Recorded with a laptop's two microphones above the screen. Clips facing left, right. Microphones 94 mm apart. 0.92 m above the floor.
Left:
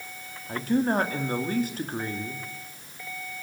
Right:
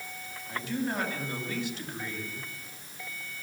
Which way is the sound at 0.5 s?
40° left (ahead or behind).